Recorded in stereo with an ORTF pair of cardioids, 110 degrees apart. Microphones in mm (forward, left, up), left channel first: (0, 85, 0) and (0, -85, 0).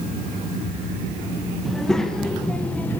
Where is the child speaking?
Straight ahead, 1.7 m; by 3.0 s 10° left, 1.1 m.